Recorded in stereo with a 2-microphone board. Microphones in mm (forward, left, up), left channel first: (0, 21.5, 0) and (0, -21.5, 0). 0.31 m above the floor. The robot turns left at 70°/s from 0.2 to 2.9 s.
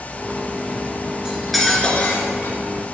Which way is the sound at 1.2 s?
160° right.